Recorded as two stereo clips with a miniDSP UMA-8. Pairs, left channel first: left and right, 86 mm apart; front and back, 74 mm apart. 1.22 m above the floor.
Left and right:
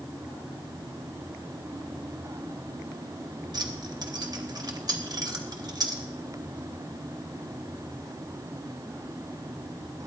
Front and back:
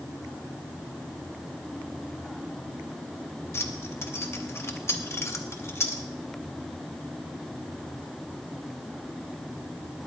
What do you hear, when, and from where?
3.5 s keys jangling: 55° right, 1.4 m